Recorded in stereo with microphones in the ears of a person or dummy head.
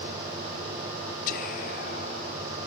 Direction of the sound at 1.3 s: 45° left (ahead or behind).